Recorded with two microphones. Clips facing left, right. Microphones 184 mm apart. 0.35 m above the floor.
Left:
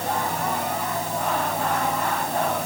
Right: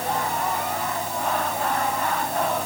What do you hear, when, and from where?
Only background noise.